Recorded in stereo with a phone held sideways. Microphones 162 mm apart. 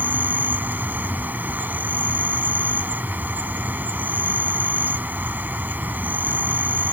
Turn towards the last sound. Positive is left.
turn(degrees=-10)  # may be behind; listen again after turning